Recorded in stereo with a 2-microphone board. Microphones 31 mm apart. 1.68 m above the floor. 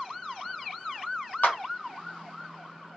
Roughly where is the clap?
Left.